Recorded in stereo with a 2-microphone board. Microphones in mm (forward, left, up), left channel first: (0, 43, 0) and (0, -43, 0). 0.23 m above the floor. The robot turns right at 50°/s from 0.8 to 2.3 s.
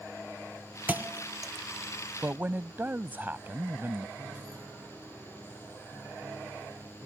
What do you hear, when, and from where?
0.9 s a thud: 20° right (ahead or behind); by 1.5 s 55° right (ahead or behind)
2.2 s a man speaking: 25° right (ahead or behind)
4.2 s a piano: 40° right (ahead or behind)